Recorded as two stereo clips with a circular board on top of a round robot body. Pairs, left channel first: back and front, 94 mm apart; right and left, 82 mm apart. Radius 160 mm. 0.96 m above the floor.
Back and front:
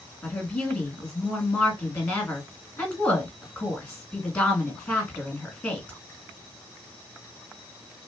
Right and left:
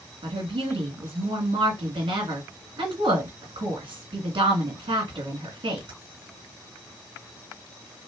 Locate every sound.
0.2 s a woman speaking: 105° left, 2.5 m